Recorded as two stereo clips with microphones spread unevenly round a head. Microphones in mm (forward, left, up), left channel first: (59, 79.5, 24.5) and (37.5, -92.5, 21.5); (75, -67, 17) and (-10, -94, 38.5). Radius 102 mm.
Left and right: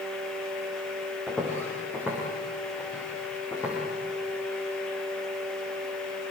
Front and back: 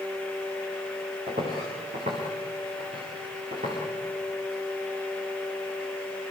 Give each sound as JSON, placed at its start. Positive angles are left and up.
{"t": 1.3, "sound": "footsteps", "azimuth_deg": 170, "distance_m": 7.5}